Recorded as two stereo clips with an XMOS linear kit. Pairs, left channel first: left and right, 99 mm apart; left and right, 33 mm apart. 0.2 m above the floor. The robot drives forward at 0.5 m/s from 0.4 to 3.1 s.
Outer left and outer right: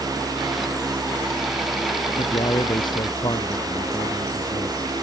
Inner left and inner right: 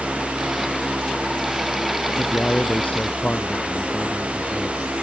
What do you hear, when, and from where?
2.2 s a man speaking: 45° left (ahead or behind)